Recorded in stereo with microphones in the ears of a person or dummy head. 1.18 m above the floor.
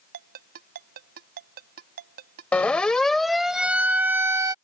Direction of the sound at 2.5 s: 5° left (ahead or behind).